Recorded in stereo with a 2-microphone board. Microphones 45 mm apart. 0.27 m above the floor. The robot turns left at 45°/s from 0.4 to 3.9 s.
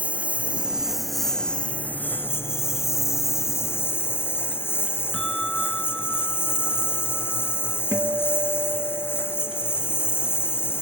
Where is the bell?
10° left (ahead or behind).